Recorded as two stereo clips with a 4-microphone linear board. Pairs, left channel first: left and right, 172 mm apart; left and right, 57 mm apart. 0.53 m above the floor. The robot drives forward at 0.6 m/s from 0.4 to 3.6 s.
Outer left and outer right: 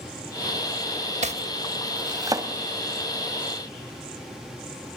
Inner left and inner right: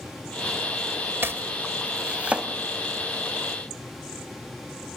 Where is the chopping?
40° right (ahead or behind), 0.7 m; by 2.5 s 20° right (ahead or behind), 1.4 m.